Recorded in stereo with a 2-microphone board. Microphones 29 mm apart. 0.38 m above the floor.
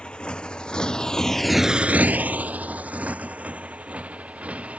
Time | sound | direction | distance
0.0 | a motorcycle | 40° left (ahead or behind) | ?